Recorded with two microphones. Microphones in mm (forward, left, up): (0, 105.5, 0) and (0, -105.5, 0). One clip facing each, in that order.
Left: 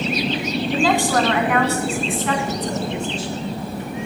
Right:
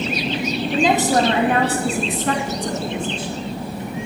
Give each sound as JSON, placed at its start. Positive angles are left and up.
{"t": 0.7, "sound": "a woman speaking", "side_deg": -20, "distance_m": 2.5}